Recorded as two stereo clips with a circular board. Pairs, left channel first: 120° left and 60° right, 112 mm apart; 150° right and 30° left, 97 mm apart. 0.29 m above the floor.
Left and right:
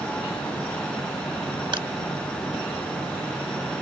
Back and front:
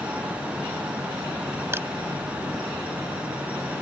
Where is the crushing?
30° right.